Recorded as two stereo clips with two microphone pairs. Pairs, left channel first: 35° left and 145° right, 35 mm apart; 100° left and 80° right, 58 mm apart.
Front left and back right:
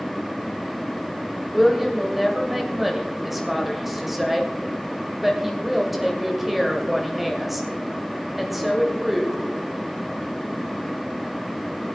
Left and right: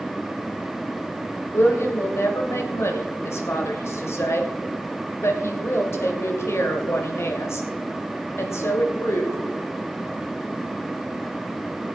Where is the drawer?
No drawer in this recording.